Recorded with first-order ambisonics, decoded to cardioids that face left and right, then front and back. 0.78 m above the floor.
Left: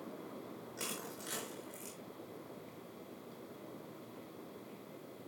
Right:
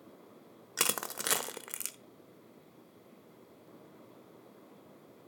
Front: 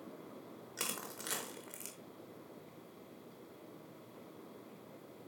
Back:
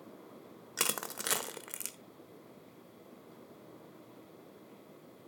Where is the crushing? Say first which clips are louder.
Right 11 dB, back 7 dB; 120° right, 0.8 m.